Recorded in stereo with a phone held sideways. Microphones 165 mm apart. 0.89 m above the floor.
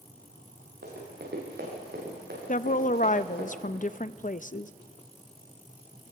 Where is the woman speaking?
50° left (ahead or behind), 0.5 m.